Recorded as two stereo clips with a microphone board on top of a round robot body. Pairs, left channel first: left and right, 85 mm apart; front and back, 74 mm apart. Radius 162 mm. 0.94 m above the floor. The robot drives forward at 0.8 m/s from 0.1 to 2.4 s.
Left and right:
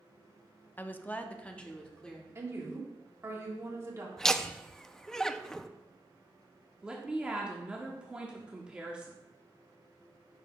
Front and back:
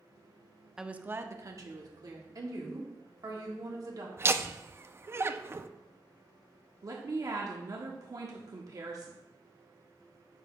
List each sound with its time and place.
0.8 s a woman speaking: 110° left, 0.7 m; by 2.2 s 170° left, 1.4 m
2.4 s a woman speaking: 145° right, 1.7 m
4.2 s laughter: 170° left, 0.6 m
6.8 s a woman speaking: 165° right, 1.0 m